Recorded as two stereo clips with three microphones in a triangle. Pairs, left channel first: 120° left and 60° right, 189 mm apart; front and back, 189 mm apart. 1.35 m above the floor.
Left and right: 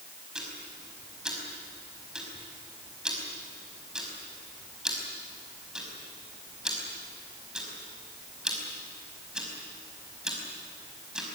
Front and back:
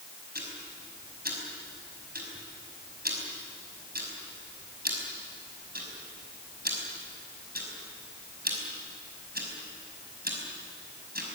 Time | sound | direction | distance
0.3 | ticking | 145° right | 5 m